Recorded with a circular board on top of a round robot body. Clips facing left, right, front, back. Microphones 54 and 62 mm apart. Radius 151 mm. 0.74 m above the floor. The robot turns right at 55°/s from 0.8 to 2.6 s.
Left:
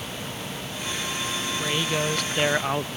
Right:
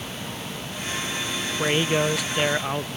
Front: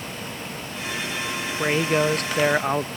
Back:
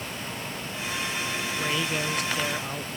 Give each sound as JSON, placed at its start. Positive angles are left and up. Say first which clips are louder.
{"t": 1.6, "sound": "a man speaking", "louder": "right 5 dB, front 9 dB", "azimuth_deg": -45}